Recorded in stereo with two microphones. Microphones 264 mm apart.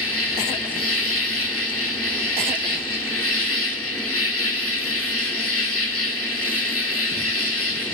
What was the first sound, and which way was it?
An insect, 60° left (ahead or behind).